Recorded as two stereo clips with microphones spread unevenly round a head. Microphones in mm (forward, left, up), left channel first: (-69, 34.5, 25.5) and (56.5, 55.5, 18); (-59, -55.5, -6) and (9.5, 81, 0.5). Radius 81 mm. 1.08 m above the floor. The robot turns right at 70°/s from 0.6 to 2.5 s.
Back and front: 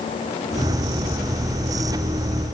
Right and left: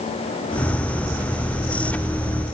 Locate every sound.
Only background noise.